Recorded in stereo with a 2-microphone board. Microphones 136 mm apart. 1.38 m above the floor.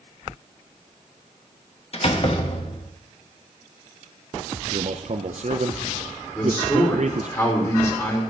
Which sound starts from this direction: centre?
A man speaking, at 6.3 s.